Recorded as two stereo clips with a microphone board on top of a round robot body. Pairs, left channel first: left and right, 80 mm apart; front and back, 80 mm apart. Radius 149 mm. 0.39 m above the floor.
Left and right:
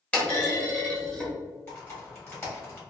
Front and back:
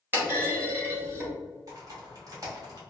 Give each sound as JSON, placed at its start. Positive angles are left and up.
{"t": 0.1, "sound": "a clunk", "azimuth_deg": 150, "distance_m": 1.6}
{"t": 1.7, "sound": "typing on a keyboard", "azimuth_deg": 145, "distance_m": 1.8}